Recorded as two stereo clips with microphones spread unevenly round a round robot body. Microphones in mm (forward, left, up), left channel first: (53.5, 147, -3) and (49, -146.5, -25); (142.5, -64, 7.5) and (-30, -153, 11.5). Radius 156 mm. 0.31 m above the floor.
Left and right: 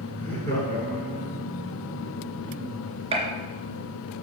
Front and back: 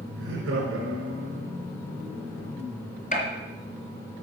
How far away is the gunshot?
About 3 m.